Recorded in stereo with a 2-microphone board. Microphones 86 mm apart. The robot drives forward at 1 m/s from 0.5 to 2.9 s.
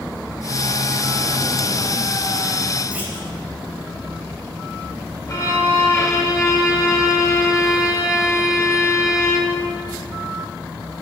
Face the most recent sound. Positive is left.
turn(degrees=35)  # may be behind; listen again after turning